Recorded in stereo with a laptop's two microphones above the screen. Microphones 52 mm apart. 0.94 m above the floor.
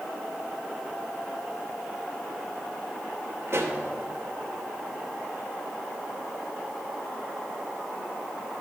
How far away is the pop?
About 1.0 m.